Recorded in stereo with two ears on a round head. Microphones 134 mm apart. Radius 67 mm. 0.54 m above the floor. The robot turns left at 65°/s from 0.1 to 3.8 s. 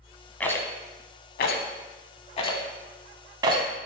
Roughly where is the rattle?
Centre.